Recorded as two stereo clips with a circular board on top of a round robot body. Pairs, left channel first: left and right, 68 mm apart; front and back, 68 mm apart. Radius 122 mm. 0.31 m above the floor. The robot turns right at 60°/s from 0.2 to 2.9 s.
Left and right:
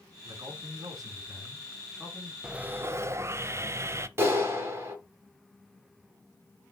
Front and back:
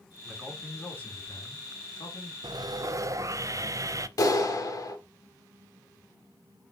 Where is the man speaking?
105° right, 3.5 m; by 2.3 s 20° left, 3.5 m.